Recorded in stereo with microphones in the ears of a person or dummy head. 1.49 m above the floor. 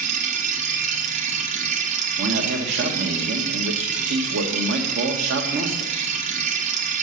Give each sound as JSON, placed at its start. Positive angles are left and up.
{"t": 0.0, "sound": "a machine running", "side_deg": -45, "distance_m": 1.0}
{"t": 2.2, "sound": "a man speaking", "side_deg": -55, "distance_m": 1.4}